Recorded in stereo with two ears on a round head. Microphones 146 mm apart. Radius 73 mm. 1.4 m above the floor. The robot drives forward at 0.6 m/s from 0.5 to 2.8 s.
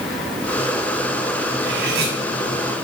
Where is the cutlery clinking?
65° right (ahead or behind), 6.5 m; by 2.1 s 70° right (ahead or behind), 6.5 m.